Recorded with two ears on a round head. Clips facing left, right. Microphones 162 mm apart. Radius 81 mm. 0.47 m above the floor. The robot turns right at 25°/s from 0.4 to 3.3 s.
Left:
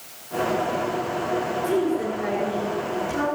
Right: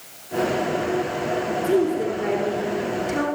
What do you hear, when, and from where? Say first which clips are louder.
1.6 s a woman speaking: right 3 dB; 150° right, 6.5 m; by 3.3 s 110° right, 6.5 m